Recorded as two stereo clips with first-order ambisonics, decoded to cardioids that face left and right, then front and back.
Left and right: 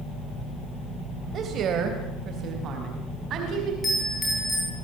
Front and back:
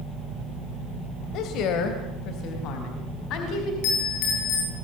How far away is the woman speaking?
About 3 m.